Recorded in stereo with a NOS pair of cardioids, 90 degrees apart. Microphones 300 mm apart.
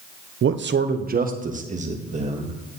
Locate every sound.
0.4 s a man speaking: 45° right, 0.8 m; by 2.5 s 20° right, 2.5 m